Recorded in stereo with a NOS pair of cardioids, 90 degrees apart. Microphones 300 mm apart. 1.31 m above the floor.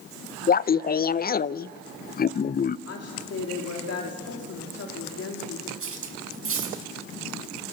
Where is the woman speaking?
50° left, 3.5 m.